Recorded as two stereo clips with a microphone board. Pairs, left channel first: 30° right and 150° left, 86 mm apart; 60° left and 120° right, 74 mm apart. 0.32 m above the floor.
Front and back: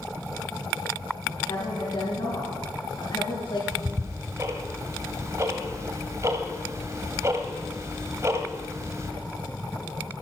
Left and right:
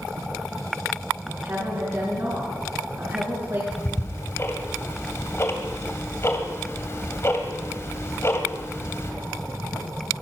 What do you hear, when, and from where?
1.3 s a woman speaking: 70° right, 3.5 m
3.7 s ticking: 105° left, 1.6 m